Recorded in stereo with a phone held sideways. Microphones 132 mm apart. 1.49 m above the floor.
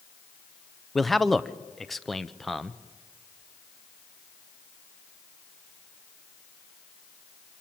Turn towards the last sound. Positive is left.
turn(degrees=0)  # may be behind; listen again after turning